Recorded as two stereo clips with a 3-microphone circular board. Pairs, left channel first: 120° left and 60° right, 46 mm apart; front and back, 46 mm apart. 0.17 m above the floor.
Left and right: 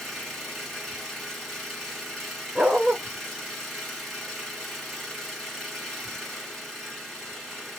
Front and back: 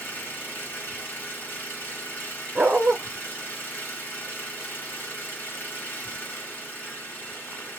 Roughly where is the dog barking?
Behind right.